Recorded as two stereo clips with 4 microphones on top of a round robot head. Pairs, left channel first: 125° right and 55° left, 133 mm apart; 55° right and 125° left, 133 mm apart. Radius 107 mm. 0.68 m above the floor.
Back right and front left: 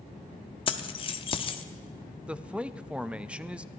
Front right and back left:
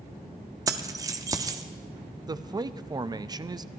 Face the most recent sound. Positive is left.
turn(degrees=130)